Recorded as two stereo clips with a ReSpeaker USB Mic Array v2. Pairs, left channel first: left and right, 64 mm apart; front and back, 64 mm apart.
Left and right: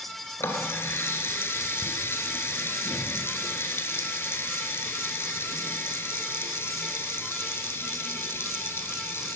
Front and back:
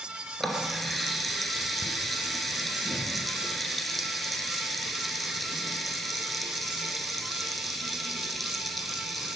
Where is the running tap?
90° left, 1.3 m.